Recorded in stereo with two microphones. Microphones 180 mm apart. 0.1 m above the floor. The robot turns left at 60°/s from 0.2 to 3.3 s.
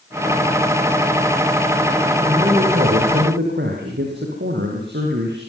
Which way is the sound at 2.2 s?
20° right.